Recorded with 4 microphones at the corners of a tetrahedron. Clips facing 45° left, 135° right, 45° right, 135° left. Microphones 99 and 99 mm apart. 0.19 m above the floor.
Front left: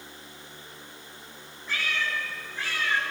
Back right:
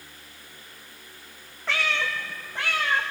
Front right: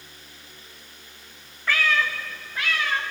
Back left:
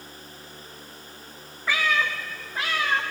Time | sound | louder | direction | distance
1.7 | a cat meowing | back right 3 dB, front right 1 dB | 145° right | 1.1 m